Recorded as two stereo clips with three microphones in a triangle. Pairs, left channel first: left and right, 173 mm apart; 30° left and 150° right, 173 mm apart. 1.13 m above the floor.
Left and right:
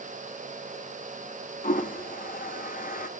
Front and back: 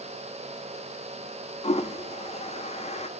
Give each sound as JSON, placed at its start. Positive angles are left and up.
{"t": 1.6, "sound": "a toilet flushing", "azimuth_deg": 70, "distance_m": 0.7}